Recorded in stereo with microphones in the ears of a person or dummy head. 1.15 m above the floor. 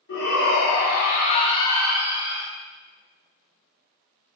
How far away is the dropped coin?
No dropped coin in this recording.